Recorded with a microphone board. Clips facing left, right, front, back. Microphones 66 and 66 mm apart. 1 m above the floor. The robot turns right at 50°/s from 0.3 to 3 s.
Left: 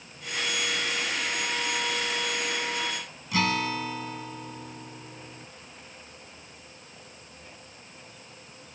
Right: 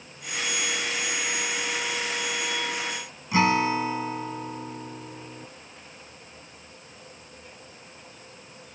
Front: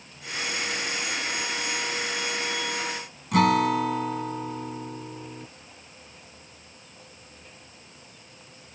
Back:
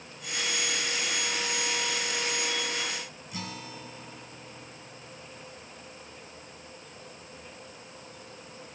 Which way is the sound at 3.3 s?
25° right.